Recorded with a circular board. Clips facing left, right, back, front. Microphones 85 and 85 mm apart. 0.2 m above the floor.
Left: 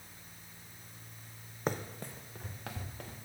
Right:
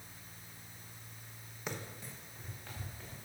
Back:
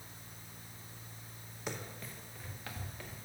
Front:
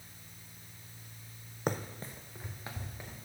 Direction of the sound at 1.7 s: 40° left.